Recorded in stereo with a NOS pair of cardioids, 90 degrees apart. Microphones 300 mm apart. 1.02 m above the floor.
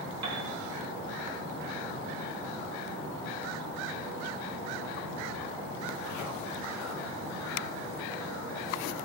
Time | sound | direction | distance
0.2 | a piano | 65° right | 2.0 m